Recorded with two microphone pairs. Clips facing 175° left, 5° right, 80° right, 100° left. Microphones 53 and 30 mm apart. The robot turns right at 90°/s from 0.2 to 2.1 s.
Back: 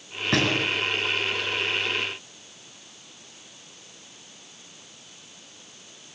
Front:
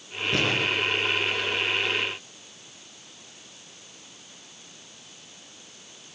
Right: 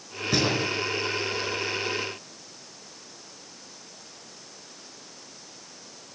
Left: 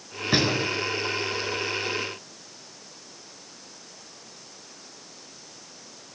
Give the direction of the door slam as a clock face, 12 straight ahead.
7 o'clock.